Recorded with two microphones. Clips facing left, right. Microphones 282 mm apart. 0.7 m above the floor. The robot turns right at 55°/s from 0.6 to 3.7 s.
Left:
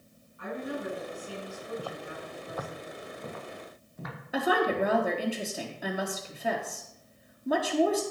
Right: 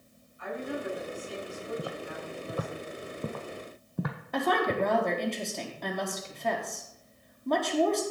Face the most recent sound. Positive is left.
turn(degrees=5)  # may be behind; listen again after turning